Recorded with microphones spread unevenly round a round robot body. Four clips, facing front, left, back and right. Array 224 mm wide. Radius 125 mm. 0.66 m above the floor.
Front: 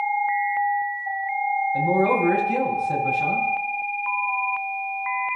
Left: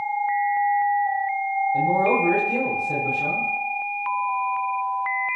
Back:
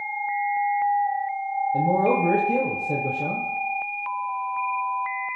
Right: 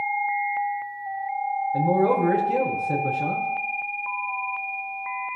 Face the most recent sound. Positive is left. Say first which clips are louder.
# right 1 dB, back 1 dB
turn(degrees=-150)